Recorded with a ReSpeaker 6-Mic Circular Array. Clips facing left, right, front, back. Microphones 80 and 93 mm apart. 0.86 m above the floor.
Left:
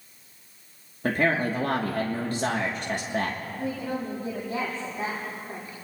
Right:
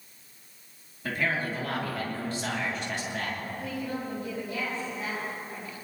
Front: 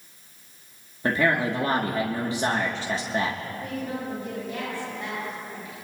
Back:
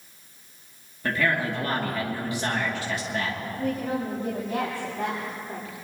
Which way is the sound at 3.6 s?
140° left.